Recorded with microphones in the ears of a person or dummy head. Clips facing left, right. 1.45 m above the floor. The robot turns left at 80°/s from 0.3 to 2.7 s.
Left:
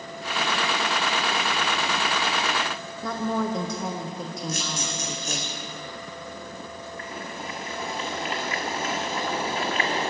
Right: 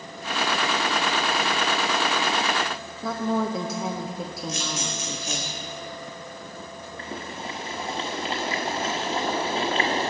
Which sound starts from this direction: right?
Boiling, at 7.0 s.